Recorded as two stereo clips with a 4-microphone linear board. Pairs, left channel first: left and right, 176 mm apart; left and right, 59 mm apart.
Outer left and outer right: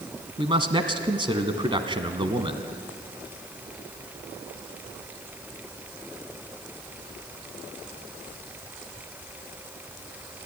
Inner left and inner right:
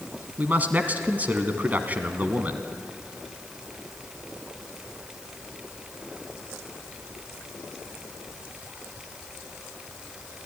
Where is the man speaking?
30° right (ahead or behind), 1.4 m.